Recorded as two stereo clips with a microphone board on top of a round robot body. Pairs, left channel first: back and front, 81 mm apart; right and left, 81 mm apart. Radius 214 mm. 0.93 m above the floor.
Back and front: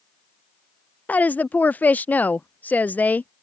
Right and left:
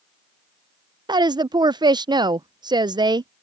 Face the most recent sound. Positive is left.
turn(degrees=110)